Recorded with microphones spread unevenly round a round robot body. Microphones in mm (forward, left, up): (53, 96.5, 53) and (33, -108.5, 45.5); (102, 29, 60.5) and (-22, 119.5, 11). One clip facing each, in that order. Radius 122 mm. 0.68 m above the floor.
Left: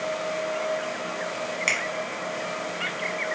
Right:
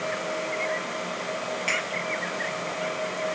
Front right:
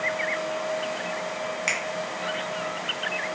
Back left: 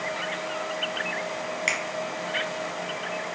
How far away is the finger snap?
About 0.9 m.